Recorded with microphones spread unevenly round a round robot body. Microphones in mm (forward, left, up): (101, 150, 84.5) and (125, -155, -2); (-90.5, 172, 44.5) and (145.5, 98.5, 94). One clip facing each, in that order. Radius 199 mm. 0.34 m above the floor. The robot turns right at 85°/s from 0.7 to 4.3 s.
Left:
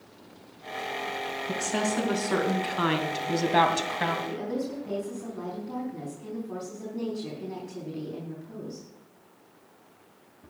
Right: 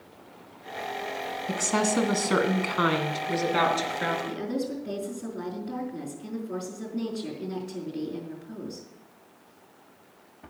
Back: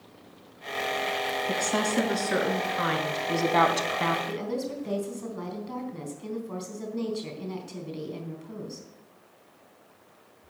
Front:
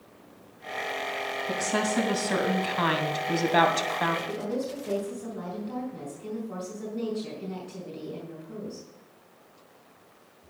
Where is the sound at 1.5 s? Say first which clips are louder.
Right 3 dB, front 1 dB; 110° right, 2.5 m; by 4.2 s 120° left, 2.5 m.